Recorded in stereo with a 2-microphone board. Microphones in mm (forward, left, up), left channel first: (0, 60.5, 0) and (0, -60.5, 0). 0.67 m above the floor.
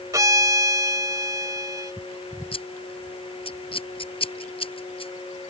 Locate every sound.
0.1 s a violin: 30° right (ahead or behind)
2.5 s scissors: 45° left (ahead or behind)